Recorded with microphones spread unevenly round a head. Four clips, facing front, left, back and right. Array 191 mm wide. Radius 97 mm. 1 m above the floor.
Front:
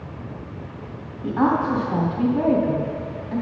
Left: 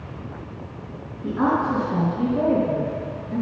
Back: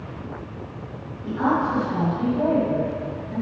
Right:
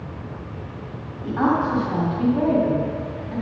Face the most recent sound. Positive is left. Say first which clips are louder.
# right 1 dB, front 2 dB
turn(degrees=-20)